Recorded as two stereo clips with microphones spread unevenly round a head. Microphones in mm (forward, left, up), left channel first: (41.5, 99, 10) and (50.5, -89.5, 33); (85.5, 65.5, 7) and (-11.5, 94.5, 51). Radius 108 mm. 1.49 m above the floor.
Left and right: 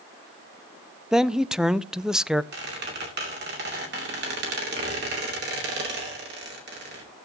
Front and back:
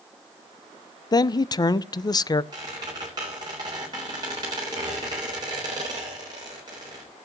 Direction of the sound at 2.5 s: 130° right.